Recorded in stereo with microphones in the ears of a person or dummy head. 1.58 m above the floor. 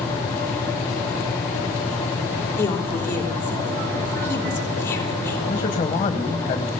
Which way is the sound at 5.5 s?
30° left (ahead or behind).